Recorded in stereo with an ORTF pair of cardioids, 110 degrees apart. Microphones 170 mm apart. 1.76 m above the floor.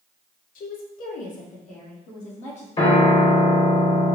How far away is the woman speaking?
About 1.1 m.